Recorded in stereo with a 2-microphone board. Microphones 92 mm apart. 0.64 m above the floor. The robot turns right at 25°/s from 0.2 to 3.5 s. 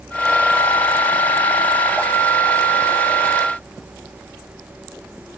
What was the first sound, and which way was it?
Only background noise.